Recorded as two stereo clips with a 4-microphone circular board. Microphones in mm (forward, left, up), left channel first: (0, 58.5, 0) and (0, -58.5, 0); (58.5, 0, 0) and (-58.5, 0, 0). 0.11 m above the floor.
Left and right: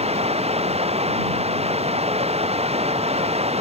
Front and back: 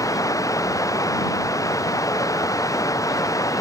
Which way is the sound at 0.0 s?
60° right.